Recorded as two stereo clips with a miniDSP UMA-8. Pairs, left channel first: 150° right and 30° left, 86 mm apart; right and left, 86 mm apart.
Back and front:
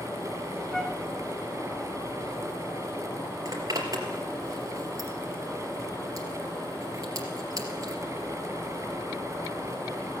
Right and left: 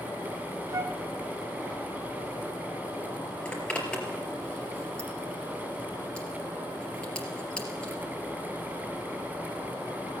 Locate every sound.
0.7 s a flute: 125° left, 0.7 m
3.5 s a zipper: 10° right, 3 m